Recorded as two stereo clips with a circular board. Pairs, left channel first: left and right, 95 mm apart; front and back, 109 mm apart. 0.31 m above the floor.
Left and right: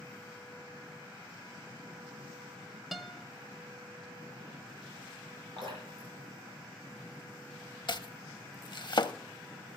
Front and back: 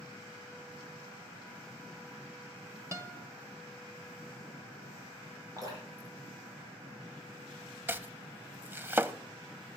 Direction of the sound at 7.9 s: 115° left.